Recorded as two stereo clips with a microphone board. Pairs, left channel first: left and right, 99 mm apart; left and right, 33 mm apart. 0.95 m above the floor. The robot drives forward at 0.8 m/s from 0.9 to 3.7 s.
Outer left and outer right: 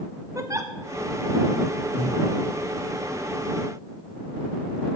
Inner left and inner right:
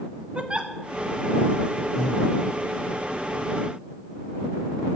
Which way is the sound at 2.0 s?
20° left (ahead or behind).